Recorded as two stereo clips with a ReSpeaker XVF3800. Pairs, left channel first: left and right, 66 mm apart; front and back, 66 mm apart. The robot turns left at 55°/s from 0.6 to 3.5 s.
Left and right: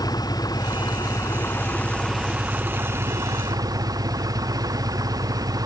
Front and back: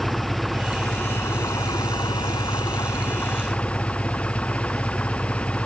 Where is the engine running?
85° left; by 5.7 s 75° right.